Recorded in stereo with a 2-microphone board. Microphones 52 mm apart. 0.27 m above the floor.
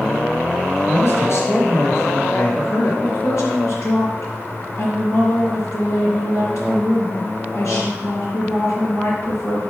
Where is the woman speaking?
75° left (ahead or behind), 4.5 m.